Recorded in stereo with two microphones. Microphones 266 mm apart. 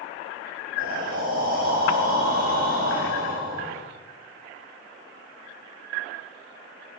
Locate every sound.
0.8 s breathing: 35° right (ahead or behind), 5 m